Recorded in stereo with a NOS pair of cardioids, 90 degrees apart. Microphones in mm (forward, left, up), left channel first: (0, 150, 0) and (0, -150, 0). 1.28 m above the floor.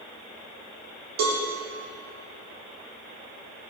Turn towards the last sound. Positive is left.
turn(degrees=-65)